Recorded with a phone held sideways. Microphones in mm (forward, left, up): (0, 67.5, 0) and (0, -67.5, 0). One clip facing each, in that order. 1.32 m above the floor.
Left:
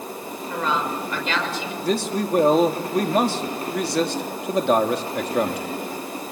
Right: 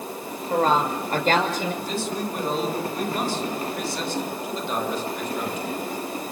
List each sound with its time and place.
0.5 s a woman speaking: 45° right (ahead or behind), 6 m; by 1.7 s 50° right (ahead or behind), 6.5 m
1.8 s a man speaking: 85° left, 3 m